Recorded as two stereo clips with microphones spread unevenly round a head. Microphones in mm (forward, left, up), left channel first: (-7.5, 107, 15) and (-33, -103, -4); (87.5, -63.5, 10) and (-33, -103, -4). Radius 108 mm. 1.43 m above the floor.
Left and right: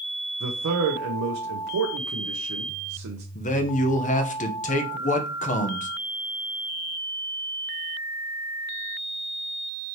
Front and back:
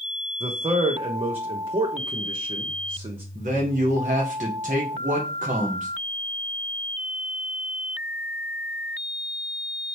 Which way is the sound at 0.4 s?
115° right.